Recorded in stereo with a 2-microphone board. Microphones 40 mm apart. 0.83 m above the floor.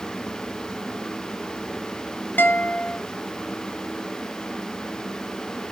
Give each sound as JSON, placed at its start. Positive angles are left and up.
{"t": 2.4, "sound": "a guitar", "side_deg": 50, "distance_m": 1.3}